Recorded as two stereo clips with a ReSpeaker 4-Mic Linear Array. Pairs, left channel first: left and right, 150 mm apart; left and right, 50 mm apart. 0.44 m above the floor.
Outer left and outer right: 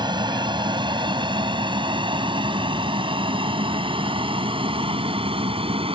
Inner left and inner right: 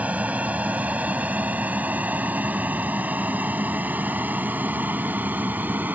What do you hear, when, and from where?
0.0 s an aircraft: 30° right (ahead or behind); by 6.0 s 40° right (ahead or behind)